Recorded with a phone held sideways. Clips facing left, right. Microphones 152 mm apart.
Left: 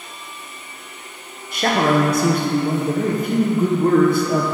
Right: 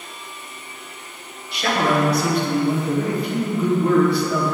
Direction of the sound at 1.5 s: 45° left (ahead or behind).